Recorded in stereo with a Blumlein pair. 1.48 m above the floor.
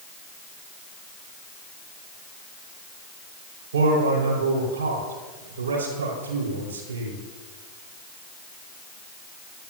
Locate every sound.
3.7 s a man speaking: 70° right, 4 m